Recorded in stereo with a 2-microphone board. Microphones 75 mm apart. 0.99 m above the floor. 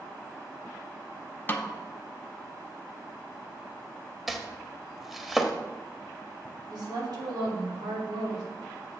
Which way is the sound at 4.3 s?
5° right (ahead or behind).